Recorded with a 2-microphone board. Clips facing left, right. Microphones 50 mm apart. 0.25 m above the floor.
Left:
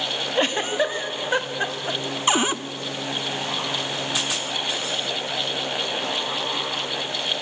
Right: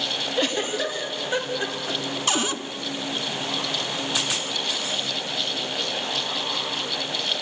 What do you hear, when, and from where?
0.3 s a giggle: 30° left (ahead or behind), 1.6 m
2.3 s a cupboard door: 25° left (ahead or behind), 0.7 m